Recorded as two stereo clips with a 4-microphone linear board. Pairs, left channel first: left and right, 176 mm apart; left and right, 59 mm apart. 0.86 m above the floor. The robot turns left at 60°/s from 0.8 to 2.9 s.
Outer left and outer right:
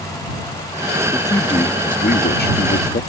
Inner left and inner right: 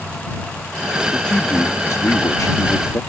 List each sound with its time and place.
1.1 s a man speaking: 170° left; by 3.0 s 60° left